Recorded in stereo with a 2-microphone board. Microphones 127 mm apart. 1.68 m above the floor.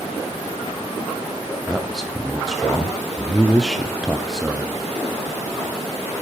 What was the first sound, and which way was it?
A man speaking, centre (ahead or behind).